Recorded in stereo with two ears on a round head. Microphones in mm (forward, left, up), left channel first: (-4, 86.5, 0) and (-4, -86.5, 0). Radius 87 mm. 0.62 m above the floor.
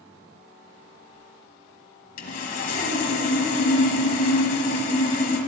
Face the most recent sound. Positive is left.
turn(degrees=45)  # may be behind; listen again after turning